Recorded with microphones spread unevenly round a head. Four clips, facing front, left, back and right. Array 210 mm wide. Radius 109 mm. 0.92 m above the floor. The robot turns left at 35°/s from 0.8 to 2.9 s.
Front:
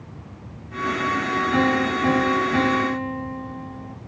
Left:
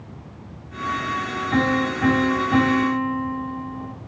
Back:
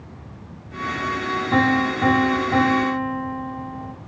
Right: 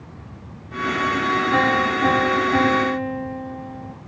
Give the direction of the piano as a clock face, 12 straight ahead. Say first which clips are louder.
Left 2 dB, back 3 dB; 6 o'clock.